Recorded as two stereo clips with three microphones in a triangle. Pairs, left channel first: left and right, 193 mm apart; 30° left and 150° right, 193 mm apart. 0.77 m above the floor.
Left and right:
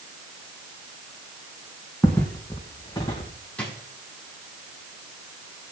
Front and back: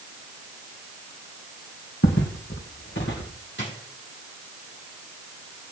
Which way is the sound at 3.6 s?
5° left.